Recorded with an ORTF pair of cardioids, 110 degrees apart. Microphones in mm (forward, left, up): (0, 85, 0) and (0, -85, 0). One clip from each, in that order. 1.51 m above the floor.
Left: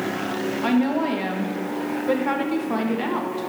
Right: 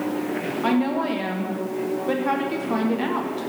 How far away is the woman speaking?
About 1.6 m.